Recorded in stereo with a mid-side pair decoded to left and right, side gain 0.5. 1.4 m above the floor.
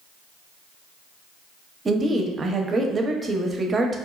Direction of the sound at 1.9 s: 35° right.